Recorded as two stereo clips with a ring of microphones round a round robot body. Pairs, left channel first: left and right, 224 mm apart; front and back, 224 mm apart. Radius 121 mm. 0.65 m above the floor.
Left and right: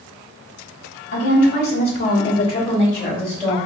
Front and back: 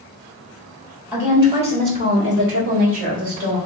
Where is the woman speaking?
100° left, 1.5 m; by 3.6 s 170° left, 2.5 m.